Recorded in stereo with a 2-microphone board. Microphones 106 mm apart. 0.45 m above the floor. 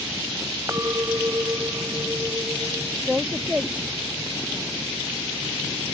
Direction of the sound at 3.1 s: 10° right (ahead or behind).